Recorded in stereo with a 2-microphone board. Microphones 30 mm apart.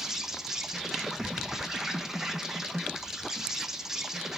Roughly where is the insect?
Centre.